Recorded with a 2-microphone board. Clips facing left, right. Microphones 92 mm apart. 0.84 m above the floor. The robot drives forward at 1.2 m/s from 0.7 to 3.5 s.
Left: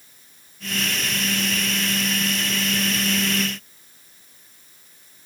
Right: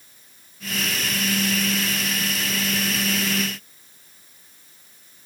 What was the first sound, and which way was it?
Only background noise.